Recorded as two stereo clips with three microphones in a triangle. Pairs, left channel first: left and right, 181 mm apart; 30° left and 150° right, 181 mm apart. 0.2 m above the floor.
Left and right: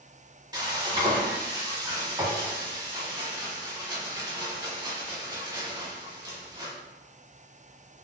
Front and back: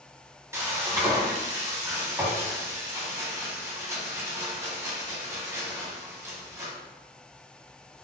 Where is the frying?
100° right, 0.8 m.